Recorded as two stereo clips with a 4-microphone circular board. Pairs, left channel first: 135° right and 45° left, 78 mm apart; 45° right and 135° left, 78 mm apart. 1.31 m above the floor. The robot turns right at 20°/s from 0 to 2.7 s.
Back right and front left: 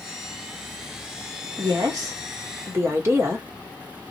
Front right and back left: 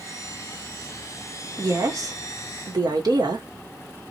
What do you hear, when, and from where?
1.6 s a woman speaking: 80° left, 1.5 m; by 3.5 s 100° left, 1.5 m